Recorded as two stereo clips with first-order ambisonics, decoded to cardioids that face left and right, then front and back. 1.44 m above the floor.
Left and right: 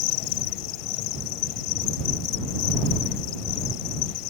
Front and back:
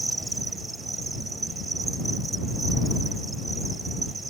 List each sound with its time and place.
0.0 s an insect: 105° left